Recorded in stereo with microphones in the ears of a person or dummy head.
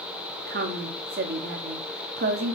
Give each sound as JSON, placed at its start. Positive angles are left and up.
{"t": 0.5, "sound": "a woman speaking", "side_deg": -50, "distance_m": 0.8}